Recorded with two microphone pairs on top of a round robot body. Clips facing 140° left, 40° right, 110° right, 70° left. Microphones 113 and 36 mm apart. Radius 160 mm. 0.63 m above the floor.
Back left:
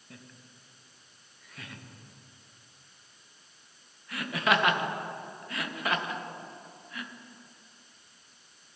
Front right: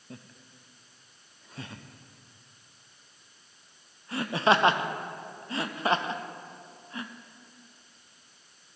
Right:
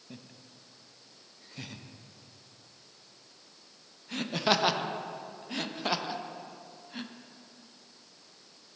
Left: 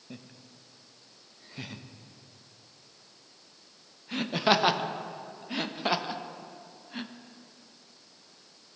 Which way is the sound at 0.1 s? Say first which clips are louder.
Front right 4 dB, left 2 dB; 5° left.